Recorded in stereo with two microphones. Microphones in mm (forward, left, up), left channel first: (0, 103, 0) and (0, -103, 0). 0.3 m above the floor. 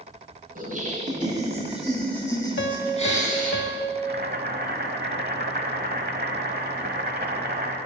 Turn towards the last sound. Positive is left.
turn(degrees=-50)  # may be behind; listen again after turning